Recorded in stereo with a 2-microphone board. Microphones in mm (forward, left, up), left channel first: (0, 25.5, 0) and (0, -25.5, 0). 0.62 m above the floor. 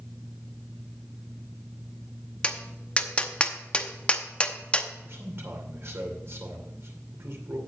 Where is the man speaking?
55° right (ahead or behind), 2.5 m.